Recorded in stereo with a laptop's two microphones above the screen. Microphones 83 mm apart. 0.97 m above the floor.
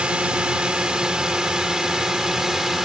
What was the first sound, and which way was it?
A drone, 10° right (ahead or behind).